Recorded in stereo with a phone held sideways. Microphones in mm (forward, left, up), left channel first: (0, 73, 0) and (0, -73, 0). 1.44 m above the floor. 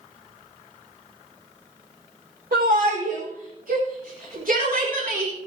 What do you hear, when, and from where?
2.5 s a shout: 75° right (ahead or behind), 5 m; by 5.3 s 90° right, 3.5 m